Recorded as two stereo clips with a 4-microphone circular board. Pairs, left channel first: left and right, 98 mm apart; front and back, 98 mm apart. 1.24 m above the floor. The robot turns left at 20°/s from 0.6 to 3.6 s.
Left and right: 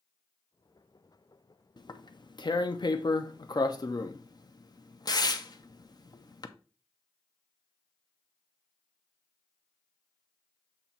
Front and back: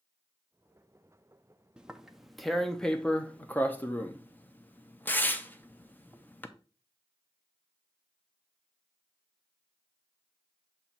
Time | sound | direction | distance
1.8 | tearing paper | 105° left | 0.6 m